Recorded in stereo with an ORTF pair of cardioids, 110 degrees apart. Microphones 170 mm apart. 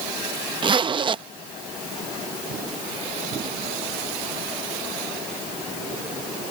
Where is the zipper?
30° right.